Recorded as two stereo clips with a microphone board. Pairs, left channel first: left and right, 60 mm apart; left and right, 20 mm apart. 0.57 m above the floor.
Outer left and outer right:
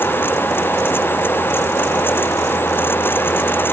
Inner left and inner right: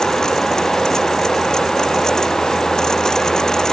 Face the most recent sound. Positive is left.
No sound to turn to.